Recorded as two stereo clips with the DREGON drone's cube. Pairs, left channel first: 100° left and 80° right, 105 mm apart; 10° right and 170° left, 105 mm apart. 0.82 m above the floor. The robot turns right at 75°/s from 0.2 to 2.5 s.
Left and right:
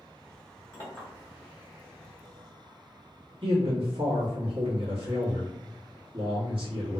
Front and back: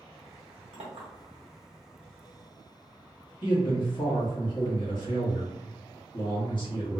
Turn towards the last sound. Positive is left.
turn(degrees=-50)